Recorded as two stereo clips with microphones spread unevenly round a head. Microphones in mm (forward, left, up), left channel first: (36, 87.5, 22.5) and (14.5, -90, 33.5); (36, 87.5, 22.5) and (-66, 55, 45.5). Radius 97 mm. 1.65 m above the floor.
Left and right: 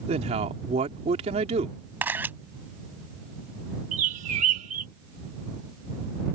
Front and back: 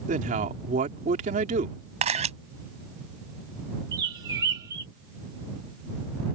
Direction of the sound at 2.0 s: 175° right.